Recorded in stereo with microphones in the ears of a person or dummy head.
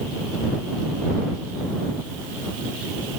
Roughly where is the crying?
No crying in this recording.